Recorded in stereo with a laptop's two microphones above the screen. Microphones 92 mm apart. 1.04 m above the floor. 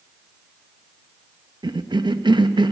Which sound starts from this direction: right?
A cough, at 1.6 s.